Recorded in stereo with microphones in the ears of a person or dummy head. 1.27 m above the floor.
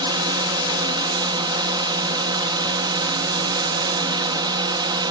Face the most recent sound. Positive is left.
turn(degrees=-20)  # may be behind; listen again after turning